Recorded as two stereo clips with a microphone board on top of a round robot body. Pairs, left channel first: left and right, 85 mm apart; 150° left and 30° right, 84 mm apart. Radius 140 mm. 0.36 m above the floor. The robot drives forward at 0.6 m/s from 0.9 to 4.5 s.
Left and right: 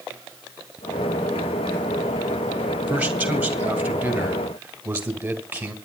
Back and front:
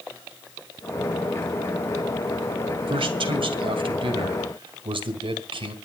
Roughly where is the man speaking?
Ahead.